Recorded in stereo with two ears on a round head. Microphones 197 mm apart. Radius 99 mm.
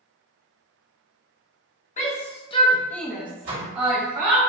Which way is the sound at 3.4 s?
65° right (ahead or behind).